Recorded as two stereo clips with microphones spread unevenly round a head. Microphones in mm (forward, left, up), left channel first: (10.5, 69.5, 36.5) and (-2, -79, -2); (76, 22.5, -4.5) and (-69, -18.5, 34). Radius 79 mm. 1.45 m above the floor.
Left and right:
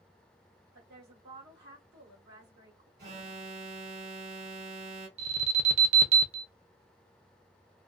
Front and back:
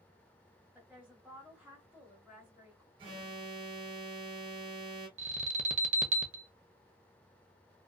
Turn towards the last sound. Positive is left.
turn(degrees=-150)